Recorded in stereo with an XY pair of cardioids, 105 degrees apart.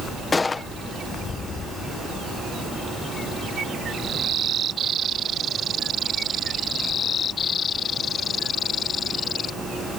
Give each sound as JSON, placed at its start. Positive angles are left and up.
{"t": 0.3, "sound": "a gunshot", "azimuth_deg": 30}